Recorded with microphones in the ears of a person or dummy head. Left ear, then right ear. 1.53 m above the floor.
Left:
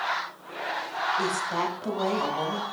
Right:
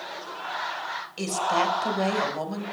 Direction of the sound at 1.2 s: 70° right (ahead or behind).